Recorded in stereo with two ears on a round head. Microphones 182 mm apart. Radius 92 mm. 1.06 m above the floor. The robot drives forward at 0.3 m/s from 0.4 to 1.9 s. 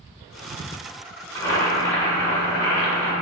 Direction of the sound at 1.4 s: 15° left (ahead or behind).